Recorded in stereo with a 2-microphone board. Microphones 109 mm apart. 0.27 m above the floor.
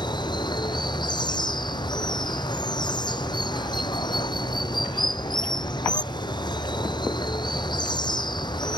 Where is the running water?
40° left (ahead or behind).